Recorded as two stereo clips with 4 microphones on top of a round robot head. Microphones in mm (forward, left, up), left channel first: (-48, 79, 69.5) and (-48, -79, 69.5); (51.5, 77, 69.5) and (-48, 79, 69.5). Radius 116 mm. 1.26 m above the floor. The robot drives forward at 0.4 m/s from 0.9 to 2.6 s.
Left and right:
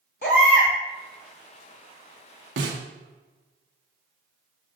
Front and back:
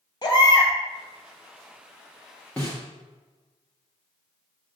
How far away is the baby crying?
About 2.5 m.